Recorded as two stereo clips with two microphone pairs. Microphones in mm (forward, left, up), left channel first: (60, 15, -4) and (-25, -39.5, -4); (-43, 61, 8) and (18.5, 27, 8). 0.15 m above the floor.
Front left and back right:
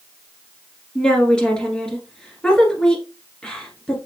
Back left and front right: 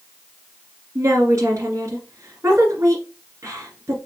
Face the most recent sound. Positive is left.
turn(degrees=-45)